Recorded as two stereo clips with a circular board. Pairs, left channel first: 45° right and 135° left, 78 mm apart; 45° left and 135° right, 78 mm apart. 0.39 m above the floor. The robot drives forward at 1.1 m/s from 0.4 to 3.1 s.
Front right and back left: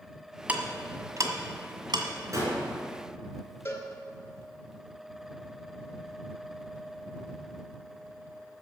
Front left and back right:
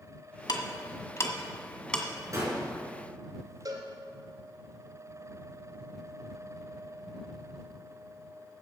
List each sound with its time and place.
0.5 s ticking: 65° left, 1.6 m; by 2.0 s 125° left, 1.8 m
2.3 s a gunshot: straight behind, 4 m
3.6 s a cowbell: 105° right, 2.5 m